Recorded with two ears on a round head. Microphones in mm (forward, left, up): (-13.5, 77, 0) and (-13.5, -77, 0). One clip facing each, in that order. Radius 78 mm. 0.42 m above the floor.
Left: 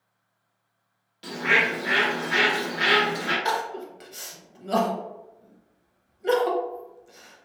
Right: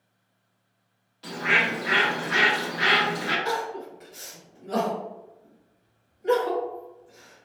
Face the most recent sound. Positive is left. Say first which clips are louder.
# left 1 dB
turn(degrees=75)  # may be behind; listen again after turning